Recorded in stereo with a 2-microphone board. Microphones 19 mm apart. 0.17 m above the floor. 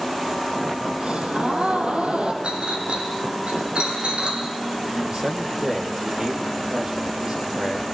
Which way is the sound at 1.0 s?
75° right (ahead or behind).